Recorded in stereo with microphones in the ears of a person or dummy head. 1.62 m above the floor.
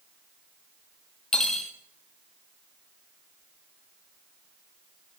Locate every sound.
1.3 s cutlery clinking: 5° left (ahead or behind), 1.4 m